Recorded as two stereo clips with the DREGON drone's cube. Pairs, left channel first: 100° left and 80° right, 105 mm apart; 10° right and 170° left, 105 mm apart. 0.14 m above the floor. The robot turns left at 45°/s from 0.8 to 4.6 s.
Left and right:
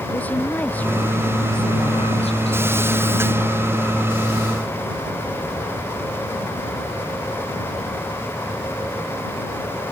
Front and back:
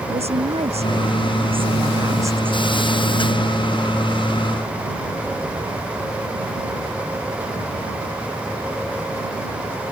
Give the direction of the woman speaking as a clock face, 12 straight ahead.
6 o'clock.